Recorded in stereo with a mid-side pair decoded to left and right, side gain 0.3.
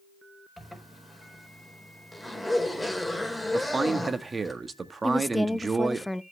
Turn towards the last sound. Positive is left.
turn(degrees=10)